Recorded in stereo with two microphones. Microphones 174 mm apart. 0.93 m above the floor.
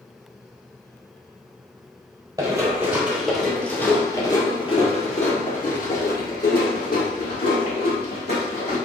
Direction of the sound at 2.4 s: 20° right (ahead or behind).